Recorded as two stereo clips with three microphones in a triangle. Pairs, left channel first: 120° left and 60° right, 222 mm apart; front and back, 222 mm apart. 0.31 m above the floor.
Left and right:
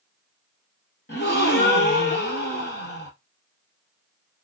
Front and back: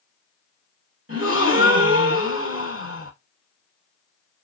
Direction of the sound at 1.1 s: 160° left.